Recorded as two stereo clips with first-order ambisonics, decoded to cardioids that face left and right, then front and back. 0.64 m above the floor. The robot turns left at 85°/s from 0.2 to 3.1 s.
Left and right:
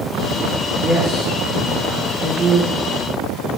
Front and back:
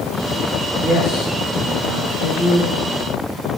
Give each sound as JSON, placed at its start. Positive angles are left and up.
{"t": 0.8, "sound": "a woman speaking", "azimuth_deg": -10, "distance_m": 3.5}